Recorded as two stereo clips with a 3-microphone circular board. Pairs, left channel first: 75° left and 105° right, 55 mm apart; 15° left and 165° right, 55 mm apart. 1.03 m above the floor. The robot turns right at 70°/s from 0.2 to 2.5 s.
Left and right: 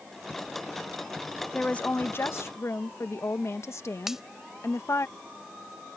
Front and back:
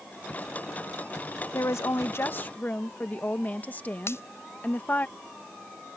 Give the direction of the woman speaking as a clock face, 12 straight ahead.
12 o'clock.